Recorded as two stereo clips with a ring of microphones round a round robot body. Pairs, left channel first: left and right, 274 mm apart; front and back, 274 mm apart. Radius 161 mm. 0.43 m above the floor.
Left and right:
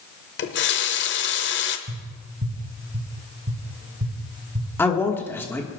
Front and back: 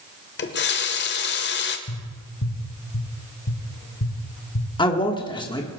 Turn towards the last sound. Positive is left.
turn(degrees=25)